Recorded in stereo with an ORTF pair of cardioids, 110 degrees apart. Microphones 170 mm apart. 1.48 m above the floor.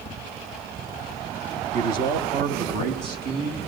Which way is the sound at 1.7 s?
50° right.